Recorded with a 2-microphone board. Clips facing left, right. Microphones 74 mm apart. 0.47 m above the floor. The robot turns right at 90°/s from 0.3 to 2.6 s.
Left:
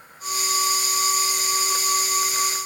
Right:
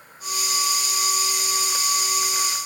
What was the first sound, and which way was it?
Only background noise.